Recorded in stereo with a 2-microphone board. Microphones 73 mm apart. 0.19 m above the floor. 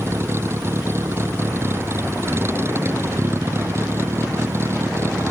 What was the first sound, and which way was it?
A vehicle, 35° right (ahead or behind).